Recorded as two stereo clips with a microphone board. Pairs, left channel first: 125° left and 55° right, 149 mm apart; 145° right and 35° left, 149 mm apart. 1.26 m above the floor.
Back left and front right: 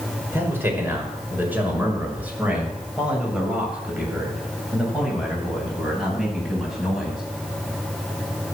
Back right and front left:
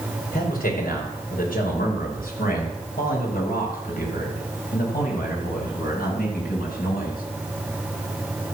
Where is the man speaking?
130° right, 5 m; by 7.2 s 145° right, 9 m.